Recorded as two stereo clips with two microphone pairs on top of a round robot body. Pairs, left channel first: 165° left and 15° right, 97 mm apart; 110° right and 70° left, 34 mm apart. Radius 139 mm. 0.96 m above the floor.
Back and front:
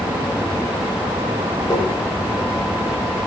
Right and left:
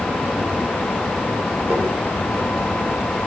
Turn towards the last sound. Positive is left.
turn(degrees=110)